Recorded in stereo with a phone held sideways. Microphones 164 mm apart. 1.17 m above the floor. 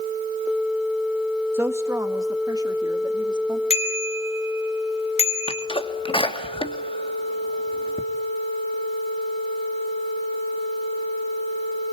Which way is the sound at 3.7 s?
40° left (ahead or behind).